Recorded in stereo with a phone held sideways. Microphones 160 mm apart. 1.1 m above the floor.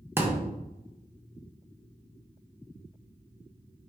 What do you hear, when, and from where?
0.2 s a thud: 15° right (ahead or behind), 0.7 m